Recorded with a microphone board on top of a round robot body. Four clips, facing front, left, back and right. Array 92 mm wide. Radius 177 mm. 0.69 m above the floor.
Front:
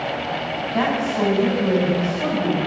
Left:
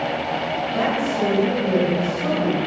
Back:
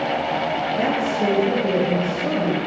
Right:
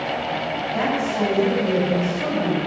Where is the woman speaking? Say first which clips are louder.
Even, front 4 dB; 20° right, 6.5 m.